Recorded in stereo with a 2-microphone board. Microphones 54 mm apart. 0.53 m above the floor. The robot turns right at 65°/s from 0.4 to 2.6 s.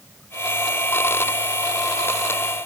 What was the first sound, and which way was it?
Only background noise.